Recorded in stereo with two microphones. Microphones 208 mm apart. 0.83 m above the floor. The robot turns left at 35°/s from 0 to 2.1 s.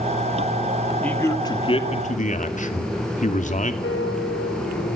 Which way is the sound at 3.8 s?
90° left.